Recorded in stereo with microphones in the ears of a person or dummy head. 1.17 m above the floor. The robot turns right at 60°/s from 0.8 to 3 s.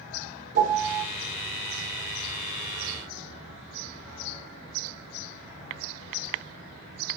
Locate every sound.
0.6 s a piano: 45° right (ahead or behind), 3 m; by 1.1 s 30° right (ahead or behind), 3 m